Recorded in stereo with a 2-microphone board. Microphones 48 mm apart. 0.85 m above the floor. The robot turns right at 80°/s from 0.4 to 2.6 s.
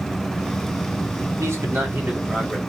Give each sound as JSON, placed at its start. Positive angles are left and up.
{"t": 1.4, "sound": "a man speaking", "azimuth_deg": -85, "distance_m": 1.8}